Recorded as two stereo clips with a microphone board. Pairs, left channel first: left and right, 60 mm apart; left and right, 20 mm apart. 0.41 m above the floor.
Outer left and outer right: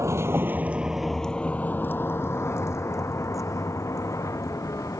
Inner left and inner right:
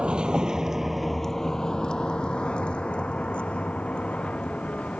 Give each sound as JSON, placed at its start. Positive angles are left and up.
{"t": 0.0, "sound": "a vehicle", "side_deg": -55}